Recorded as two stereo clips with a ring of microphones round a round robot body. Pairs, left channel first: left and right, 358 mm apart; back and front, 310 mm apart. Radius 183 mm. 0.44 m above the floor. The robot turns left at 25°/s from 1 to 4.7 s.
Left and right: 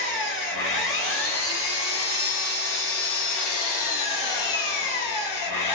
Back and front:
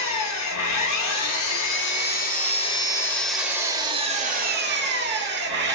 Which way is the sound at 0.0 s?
150° left.